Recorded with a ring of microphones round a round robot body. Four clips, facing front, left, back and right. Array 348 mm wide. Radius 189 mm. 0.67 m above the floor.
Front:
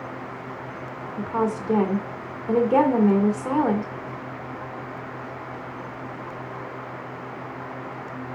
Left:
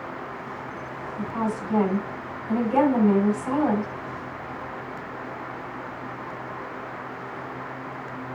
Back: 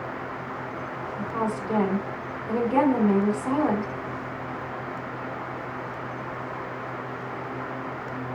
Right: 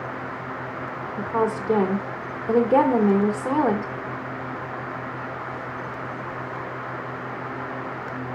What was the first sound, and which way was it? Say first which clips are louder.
A woman speaking: right 4 dB, front 4 dB; 55° right.